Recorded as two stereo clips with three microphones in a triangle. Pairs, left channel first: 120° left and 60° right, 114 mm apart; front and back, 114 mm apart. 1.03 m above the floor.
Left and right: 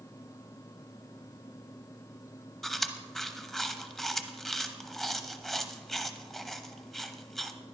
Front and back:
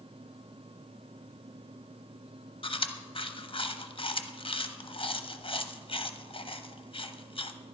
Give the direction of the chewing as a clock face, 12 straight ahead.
11 o'clock.